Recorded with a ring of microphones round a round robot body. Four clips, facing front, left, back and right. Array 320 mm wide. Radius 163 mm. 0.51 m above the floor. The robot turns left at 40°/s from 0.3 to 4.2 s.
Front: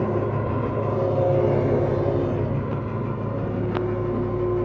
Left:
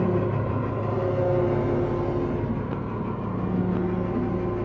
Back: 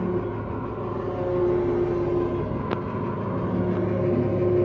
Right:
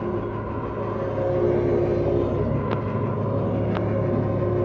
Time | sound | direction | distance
0.0 | an engine running | 10° left | 1.2 m